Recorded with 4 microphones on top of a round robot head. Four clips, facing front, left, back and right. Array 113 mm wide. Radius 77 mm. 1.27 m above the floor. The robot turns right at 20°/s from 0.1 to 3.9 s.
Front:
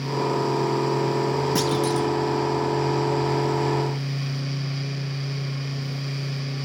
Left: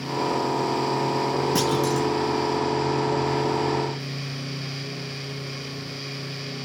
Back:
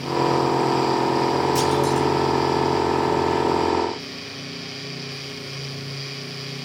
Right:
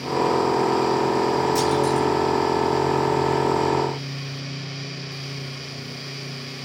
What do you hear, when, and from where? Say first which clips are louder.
1.6 s a clunk: right 3 dB, back 3 dB; 40° left, 0.8 m; by 2.1 s 50° left, 0.8 m